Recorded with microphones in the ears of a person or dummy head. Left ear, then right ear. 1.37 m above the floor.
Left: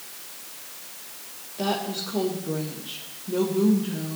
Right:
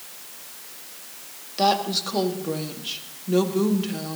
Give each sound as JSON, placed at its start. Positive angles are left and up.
{"t": 1.6, "sound": "a woman speaking", "side_deg": -70, "distance_m": 2.0}